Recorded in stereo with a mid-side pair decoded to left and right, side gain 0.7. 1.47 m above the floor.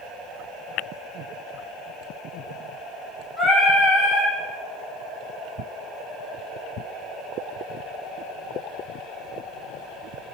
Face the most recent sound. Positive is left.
turn(degrees=15)